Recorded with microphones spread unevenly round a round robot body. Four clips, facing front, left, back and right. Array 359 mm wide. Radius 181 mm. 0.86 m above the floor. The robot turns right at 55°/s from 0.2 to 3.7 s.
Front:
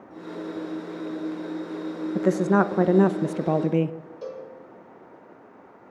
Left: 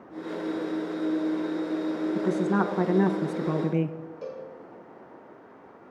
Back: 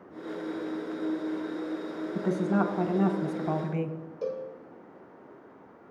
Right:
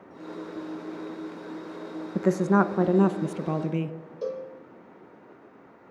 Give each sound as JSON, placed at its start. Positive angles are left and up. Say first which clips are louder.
{"t": 2.1, "sound": "a woman speaking", "louder": "right 5 dB, front 6 dB", "azimuth_deg": -65, "distance_m": 0.6}
{"t": 4.2, "sound": "a cowbell", "louder": "right 8 dB, back 4 dB", "azimuth_deg": -120, "distance_m": 1.3}